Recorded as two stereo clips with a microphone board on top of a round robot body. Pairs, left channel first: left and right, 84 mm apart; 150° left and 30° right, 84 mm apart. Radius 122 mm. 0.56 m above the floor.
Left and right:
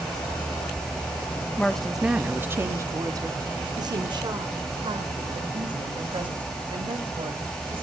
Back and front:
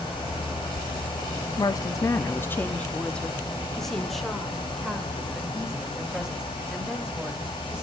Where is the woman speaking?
160° left, 0.8 m; by 7.8 s 110° right, 3.5 m.